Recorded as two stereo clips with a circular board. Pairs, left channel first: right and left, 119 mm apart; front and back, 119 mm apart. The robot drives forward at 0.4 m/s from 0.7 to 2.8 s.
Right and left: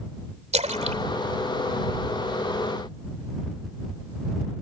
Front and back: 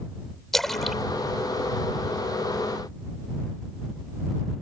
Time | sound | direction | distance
0.5 | a splash | 85° left | ?